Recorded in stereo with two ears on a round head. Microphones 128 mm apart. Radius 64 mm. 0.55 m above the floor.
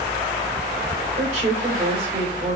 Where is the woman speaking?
50° right (ahead or behind), 2 m.